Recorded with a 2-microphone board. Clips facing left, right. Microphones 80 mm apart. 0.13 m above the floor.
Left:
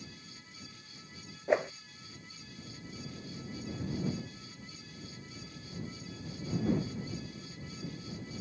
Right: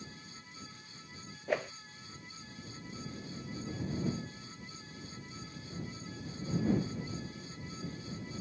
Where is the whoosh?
20° left (ahead or behind).